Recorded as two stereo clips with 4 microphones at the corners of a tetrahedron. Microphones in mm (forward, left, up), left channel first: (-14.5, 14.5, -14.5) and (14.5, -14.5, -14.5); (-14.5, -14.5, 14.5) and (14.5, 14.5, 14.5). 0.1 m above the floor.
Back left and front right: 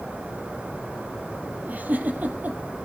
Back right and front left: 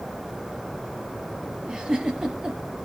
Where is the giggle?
20° right, 3 m.